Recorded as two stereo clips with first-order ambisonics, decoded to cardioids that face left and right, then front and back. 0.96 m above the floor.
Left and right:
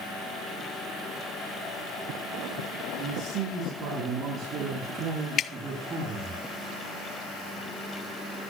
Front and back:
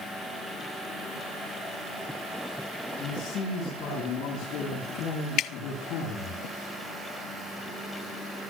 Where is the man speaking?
60° right, 9 m; by 6.4 s 45° right, 10 m.